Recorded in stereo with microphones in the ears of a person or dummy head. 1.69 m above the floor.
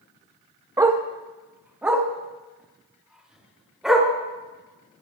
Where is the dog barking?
15° right (ahead or behind), 1.1 m; by 4.1 s centre (ahead or behind), 3 m.